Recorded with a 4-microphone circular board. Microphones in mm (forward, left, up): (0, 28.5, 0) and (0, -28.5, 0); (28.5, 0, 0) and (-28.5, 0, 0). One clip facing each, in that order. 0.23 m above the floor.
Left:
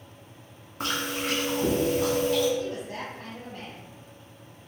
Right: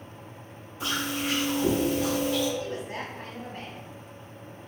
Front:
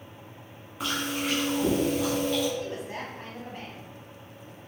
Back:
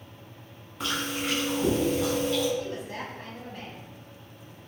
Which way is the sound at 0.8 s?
85° left.